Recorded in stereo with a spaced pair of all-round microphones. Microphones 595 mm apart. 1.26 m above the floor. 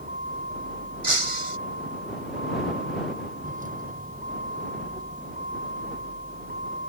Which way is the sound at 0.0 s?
15° right (ahead or behind).